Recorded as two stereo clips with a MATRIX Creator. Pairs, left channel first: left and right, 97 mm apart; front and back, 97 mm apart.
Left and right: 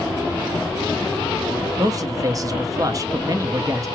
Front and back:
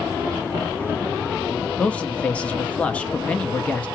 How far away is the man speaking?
About 0.8 m.